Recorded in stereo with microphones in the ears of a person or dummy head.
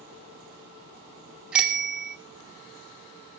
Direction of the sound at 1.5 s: 10° right (ahead or behind).